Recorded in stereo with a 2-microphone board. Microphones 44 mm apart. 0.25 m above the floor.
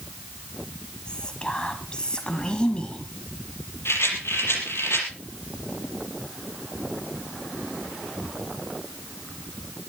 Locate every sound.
1.1 s whispering: 20° left (ahead or behind), 1.4 m
3.9 s a rattle: 75° left (ahead or behind), 6 m